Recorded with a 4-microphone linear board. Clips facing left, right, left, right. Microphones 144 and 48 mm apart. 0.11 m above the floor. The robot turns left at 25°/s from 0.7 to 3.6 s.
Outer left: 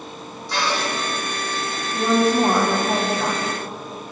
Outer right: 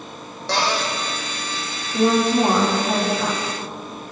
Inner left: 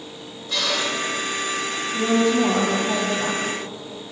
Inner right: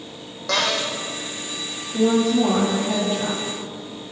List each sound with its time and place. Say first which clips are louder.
0.5 s a cupboard door: outer right 2 dB, inner right 2 dB; 75° right (ahead or behind), 6.5 m
1.9 s a woman speaking: outer right 1 dB, inner right 1 dB; 155° right, 8 m; by 3.4 s 170° left, 8 m